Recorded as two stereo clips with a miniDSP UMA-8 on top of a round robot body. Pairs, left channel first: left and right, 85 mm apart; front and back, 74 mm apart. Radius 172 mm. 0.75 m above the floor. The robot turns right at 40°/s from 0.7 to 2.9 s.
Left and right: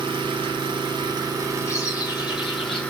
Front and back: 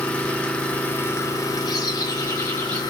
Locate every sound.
0.0 s an engine running: 75° right, 0.8 m; by 2.9 s 15° left, 0.8 m
1.7 s a bird: 30° left, 0.7 m; by 2.8 s 75° left, 0.7 m